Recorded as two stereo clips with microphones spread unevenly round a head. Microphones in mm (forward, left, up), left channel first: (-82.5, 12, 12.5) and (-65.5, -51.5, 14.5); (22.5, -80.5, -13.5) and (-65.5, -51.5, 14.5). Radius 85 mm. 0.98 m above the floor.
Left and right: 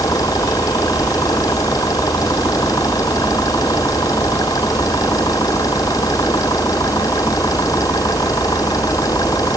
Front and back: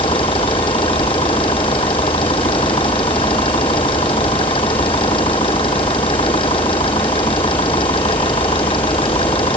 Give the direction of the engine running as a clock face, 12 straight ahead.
11 o'clock.